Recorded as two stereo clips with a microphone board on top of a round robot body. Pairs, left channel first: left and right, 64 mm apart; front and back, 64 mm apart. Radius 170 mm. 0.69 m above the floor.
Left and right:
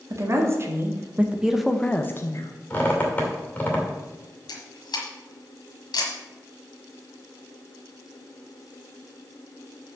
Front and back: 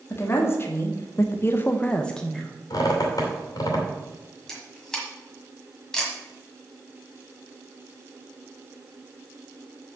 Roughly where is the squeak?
Ahead left.